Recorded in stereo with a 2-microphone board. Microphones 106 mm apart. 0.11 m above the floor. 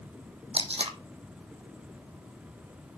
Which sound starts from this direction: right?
Tape being pulled, at 0.5 s.